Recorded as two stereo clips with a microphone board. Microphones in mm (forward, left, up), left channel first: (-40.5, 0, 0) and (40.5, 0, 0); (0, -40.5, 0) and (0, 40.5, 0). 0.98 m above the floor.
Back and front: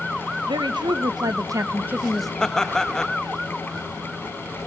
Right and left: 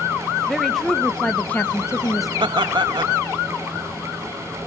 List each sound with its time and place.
0.5 s a woman speaking: straight ahead, 1.0 m; by 2.3 s 100° right, 0.5 m
2.4 s laughter: 95° left, 1.0 m